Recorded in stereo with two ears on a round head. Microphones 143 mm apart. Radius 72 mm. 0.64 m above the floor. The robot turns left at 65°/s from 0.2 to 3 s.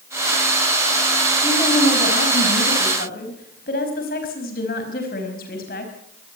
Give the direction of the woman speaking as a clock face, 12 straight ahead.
7 o'clock.